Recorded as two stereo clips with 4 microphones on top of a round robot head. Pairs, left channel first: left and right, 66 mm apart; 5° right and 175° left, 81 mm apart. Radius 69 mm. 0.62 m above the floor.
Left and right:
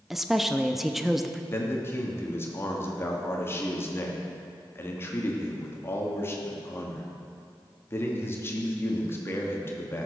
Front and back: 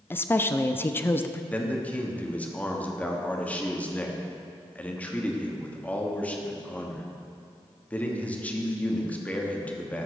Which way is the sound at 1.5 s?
60° left.